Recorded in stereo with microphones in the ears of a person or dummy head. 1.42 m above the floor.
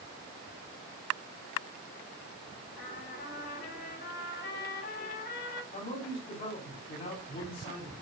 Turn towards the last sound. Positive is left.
turn(degrees=40)  # may be behind; listen again after turning